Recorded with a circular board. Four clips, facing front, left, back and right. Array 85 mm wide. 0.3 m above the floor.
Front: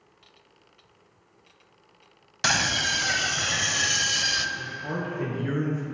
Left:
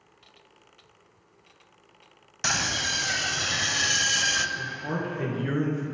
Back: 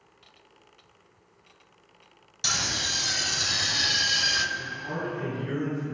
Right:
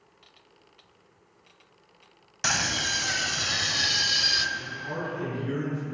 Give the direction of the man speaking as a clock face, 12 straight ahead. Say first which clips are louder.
Left 2 dB, front 1 dB; 10 o'clock.